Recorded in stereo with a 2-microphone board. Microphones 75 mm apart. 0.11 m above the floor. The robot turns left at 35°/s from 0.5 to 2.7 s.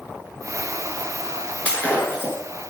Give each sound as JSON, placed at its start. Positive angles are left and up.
{"t": 1.6, "sound": "breaking glass", "side_deg": 20, "distance_m": 0.9}